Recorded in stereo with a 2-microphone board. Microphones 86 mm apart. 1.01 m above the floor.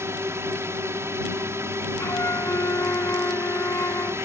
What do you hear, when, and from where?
0.0 s a drone: 30° right (ahead or behind)
2.0 s a flute: 35° left (ahead or behind)